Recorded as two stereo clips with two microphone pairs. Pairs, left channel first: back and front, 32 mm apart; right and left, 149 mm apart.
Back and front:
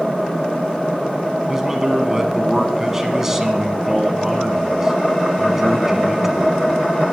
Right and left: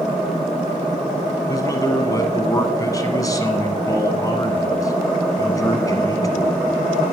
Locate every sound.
1.5 s a man speaking: 65° right, 1.1 m